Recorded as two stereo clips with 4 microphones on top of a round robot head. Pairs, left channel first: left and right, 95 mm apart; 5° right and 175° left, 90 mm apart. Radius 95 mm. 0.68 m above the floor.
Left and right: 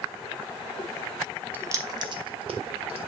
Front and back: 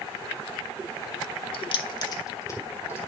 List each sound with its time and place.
1.5 s keys jangling: 20° right, 0.6 m; by 3.0 s 75° right, 1.4 m